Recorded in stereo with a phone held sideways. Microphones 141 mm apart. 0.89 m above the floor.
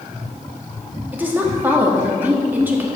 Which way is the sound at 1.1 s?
10° right (ahead or behind).